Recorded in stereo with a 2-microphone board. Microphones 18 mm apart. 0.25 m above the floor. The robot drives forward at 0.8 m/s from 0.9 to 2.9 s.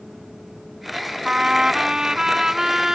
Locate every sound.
1.2 s a trumpet: 55° right (ahead or behind); by 3.0 s 30° right (ahead or behind)